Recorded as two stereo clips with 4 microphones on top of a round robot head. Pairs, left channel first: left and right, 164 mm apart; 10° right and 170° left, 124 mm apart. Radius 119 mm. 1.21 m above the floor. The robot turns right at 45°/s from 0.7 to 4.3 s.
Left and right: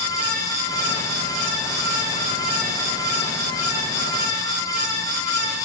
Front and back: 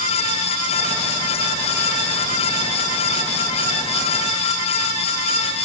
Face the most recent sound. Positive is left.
No sound to turn to.